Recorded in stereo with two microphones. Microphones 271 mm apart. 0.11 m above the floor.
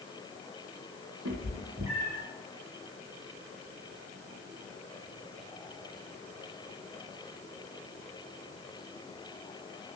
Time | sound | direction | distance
1.2 | a cat meowing | 70° right (ahead or behind) | 1.7 m